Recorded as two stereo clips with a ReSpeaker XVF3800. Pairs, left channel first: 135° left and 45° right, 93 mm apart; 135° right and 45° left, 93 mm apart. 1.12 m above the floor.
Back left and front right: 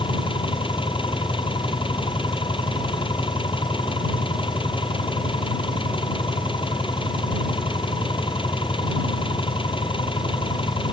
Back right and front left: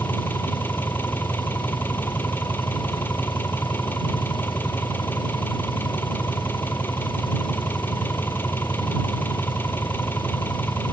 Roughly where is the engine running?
Behind left.